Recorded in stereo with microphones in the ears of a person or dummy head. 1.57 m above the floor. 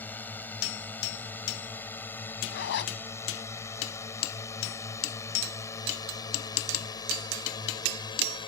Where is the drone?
10° left (ahead or behind); by 8.5 s 25° left (ahead or behind).